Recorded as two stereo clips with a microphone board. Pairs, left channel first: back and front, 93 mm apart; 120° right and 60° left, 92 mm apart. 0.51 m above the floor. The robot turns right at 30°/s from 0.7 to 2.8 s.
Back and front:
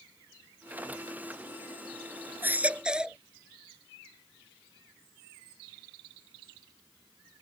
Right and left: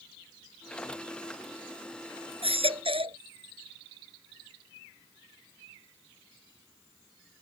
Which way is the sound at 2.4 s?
70° left.